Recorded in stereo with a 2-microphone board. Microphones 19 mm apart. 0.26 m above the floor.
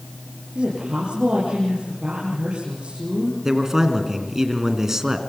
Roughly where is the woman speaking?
Right.